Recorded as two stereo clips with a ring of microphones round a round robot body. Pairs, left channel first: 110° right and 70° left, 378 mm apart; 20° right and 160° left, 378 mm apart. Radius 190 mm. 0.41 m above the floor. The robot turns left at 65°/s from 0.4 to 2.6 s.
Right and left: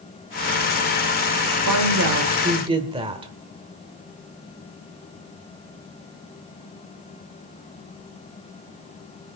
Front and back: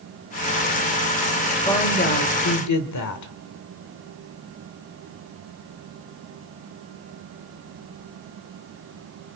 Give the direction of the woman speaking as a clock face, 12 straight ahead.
10 o'clock.